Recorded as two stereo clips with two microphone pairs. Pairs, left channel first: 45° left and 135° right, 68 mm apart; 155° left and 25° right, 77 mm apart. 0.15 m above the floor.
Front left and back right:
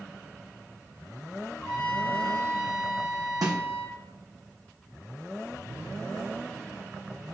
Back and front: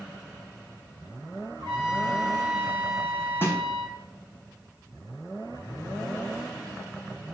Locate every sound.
1.6 s a trumpet: 30° right, 4 m
3.4 s a snare drum: 145° right, 2 m